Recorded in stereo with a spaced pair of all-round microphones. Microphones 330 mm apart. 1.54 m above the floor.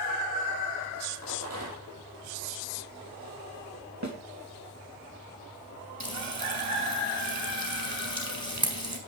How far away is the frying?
About 4 m.